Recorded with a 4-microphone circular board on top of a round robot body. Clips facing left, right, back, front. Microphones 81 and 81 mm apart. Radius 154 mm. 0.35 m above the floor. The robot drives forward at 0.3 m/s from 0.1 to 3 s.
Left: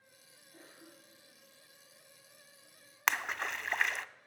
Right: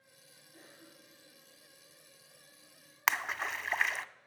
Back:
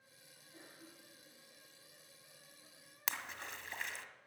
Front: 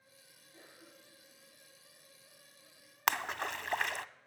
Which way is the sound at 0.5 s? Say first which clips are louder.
Left 1 dB, even; 125° left.